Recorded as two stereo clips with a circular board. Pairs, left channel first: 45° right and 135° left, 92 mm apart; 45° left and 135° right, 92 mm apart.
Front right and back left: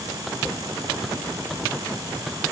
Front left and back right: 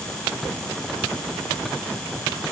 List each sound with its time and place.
Only background noise.